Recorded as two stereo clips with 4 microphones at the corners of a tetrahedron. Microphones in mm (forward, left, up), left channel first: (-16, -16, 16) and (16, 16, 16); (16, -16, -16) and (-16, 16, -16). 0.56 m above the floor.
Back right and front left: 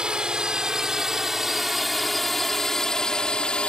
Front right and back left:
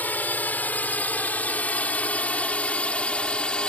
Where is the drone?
15° right; by 3.7 s 95° right.